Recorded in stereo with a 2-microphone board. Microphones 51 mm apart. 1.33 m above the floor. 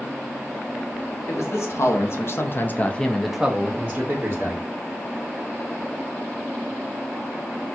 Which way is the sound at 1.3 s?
65° left (ahead or behind).